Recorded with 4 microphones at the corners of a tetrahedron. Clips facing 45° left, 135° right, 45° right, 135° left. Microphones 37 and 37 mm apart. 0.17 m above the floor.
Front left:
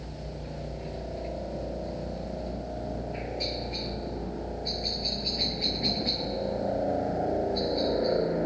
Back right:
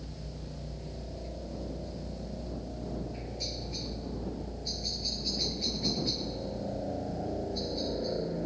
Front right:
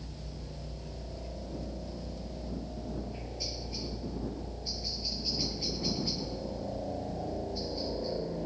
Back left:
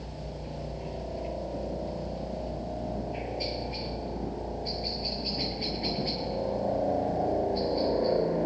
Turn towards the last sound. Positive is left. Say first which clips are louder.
# front left 5 dB, back left 6 dB
turn(degrees=90)